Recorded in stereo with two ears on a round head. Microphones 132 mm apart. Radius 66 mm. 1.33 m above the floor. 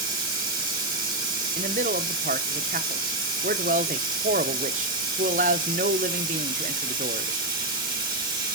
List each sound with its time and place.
0.0 s running water: 30° right (ahead or behind), 1.9 m
1.6 s a man speaking: 55° right (ahead or behind), 0.6 m